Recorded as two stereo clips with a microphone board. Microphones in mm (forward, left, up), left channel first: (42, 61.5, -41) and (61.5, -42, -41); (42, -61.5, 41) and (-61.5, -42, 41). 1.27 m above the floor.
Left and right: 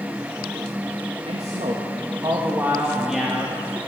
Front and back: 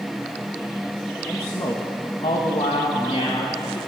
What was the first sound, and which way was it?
A man speaking, 75° right.